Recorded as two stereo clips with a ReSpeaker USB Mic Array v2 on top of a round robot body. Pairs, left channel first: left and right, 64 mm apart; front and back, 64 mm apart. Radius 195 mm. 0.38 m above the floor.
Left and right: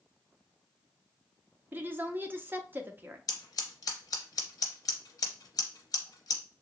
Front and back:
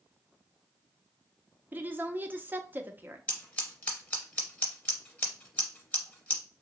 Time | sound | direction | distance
1.7 | a woman speaking | 135° right | 0.9 m
3.3 | scissors | 65° left | 0.7 m